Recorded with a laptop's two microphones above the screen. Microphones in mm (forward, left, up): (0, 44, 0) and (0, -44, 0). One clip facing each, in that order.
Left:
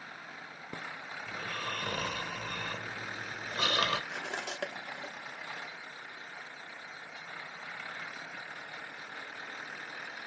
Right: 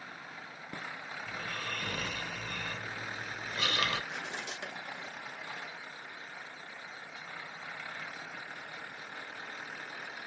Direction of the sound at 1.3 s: 45° left (ahead or behind).